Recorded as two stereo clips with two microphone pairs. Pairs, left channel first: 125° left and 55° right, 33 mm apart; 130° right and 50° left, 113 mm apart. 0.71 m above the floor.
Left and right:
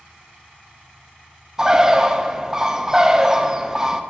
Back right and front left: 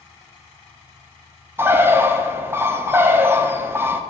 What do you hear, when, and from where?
1.6 s a bird: 5° right, 0.5 m